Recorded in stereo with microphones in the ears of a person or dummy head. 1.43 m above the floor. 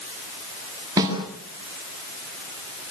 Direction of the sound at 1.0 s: 20° right (ahead or behind).